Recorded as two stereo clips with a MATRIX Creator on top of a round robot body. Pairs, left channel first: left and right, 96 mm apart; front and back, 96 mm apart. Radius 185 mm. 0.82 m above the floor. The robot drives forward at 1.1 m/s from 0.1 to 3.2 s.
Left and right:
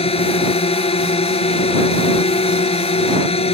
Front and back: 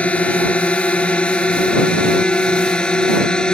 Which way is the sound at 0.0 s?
80° left.